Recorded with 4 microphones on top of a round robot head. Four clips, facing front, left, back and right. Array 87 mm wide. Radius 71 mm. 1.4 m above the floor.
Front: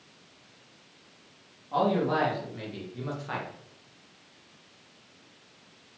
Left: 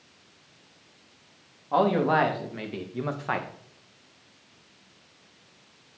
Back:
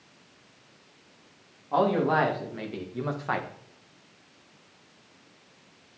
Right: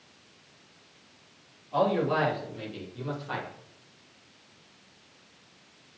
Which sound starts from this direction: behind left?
A man speaking, at 1.7 s.